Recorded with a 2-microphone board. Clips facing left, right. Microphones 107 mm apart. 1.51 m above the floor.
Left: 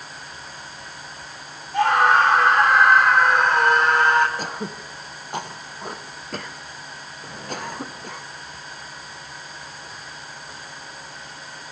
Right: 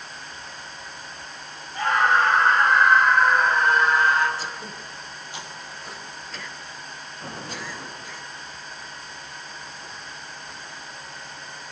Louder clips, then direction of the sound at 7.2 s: Left 3 dB; 35° right (ahead or behind).